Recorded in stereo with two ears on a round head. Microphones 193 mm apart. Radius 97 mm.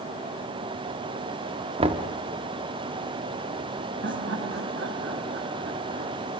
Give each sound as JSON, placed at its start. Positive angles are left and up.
{"t": 1.8, "sound": "knocking", "side_deg": -25, "distance_m": 1.0}
{"t": 4.0, "sound": "laughter", "side_deg": -55, "distance_m": 1.6}